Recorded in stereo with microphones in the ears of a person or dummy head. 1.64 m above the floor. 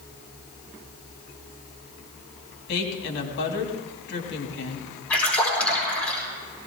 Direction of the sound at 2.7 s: 65° left (ahead or behind).